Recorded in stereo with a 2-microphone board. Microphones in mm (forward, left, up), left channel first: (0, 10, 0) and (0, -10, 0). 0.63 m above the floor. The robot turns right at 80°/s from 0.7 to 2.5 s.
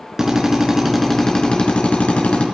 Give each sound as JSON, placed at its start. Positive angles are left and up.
{"t": 0.2, "sound": "a drill", "azimuth_deg": -15, "distance_m": 3.5}